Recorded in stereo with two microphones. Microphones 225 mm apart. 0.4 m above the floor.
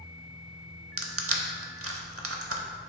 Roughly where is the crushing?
Right.